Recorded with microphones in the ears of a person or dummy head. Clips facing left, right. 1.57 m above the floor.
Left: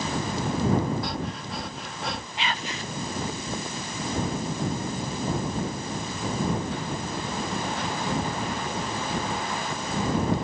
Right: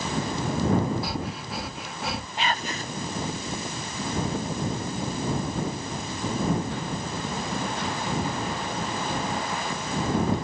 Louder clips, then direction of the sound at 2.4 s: Right 4 dB; 35° right (ahead or behind).